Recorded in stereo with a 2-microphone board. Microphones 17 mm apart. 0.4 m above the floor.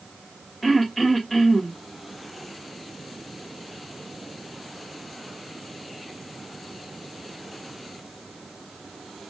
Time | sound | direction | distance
0.6 | throat clearing | 10° left (ahead or behind) | 2.0 m